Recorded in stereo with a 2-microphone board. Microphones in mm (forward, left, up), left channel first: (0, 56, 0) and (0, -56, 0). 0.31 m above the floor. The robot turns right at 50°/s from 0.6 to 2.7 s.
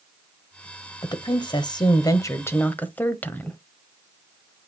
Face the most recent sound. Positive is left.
turn(degrees=155)